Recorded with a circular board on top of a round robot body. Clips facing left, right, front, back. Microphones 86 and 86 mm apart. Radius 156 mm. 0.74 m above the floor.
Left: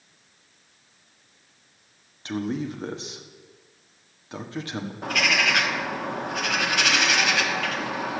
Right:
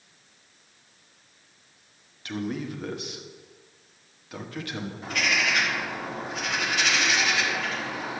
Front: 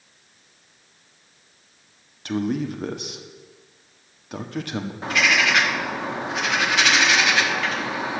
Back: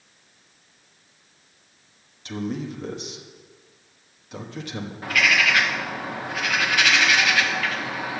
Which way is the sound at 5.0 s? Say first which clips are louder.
Left 3 dB, even; 65° left.